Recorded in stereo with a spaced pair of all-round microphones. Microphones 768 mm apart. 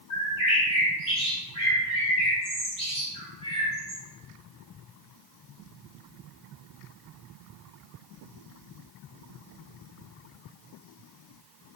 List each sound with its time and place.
0.1 s a bird: 30° left (ahead or behind), 1.5 m